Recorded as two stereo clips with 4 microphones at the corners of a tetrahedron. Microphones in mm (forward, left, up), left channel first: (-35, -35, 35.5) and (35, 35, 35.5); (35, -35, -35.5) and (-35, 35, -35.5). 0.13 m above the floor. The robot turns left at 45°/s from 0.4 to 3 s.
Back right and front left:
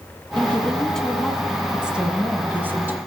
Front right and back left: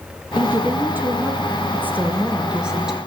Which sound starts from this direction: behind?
A woman speaking, at 0.4 s.